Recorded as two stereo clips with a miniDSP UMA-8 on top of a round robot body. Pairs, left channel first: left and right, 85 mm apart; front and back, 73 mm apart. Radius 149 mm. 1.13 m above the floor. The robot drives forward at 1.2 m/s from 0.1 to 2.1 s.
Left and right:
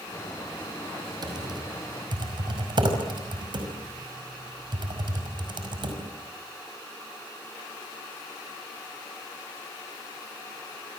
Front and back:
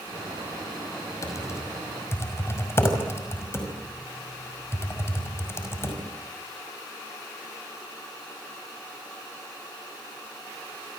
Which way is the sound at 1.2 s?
50° right.